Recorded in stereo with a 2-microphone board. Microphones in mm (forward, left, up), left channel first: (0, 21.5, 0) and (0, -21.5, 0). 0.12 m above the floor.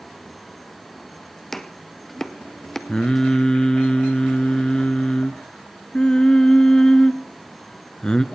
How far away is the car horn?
No car horn in this recording.